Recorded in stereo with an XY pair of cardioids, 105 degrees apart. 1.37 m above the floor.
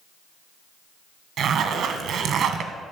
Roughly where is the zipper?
Right.